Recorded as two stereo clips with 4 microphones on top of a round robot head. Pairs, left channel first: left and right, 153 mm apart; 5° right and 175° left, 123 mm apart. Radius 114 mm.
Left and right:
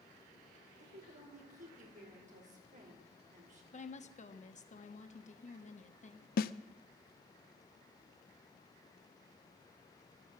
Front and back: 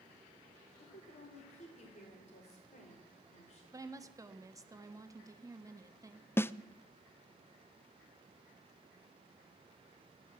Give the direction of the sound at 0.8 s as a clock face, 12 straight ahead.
1 o'clock.